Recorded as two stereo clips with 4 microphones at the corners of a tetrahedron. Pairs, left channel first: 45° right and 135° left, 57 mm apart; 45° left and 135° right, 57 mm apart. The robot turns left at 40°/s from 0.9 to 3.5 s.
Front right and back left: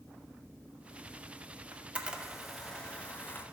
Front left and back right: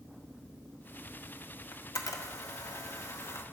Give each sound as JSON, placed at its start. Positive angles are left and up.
{"t": 1.7, "sound": "a camera shutter", "azimuth_deg": 75, "distance_m": 0.8}